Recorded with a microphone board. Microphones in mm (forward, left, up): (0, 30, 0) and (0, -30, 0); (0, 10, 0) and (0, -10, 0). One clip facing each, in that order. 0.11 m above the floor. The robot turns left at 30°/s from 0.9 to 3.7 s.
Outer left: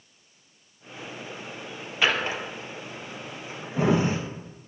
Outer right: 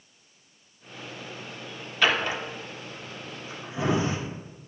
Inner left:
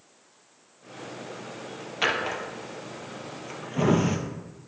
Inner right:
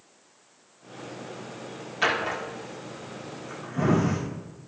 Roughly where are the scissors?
I don't hear scissors.